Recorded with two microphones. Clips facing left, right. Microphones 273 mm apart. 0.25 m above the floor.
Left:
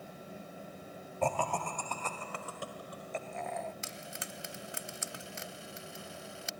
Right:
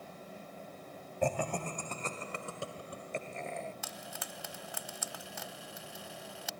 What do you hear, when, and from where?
1.2 s laughter: 15° right (ahead or behind); by 3.7 s 30° right (ahead or behind)
3.8 s frying: 25° left (ahead or behind)